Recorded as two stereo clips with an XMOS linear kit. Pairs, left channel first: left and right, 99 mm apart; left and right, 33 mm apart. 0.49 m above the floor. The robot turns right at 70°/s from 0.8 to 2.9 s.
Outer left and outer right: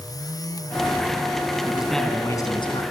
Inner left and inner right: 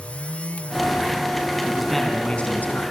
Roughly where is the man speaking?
Ahead.